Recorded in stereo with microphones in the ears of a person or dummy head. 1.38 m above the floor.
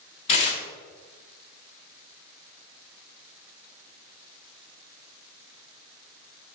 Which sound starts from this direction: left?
Tearing paper, at 0.3 s.